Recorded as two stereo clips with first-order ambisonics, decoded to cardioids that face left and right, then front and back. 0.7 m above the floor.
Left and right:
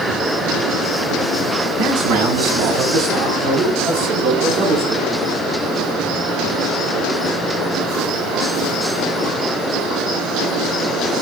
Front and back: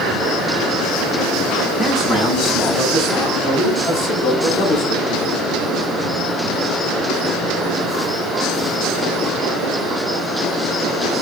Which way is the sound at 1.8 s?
90° right.